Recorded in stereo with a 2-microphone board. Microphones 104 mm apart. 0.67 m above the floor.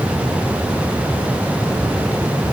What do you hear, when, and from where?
Only background noise.